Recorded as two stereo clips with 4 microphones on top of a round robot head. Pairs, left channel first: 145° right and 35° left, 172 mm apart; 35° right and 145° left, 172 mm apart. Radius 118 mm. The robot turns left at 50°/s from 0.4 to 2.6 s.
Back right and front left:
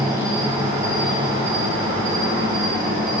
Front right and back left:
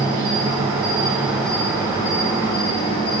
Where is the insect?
105° left, 6.5 m; by 3.2 s 5° right, 6.5 m.